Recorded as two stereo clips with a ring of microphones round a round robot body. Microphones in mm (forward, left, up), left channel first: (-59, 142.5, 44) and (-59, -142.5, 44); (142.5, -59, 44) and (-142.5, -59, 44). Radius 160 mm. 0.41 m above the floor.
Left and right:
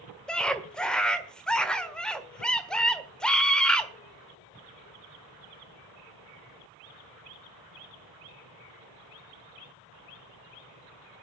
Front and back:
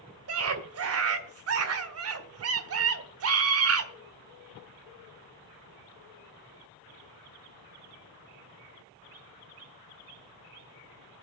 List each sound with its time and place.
0.3 s a scream: 175° left, 1.4 m